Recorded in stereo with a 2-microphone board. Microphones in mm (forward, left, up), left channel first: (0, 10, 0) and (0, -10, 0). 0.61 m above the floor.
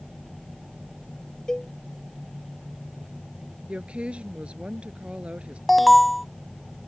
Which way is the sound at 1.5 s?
25° left (ahead or behind).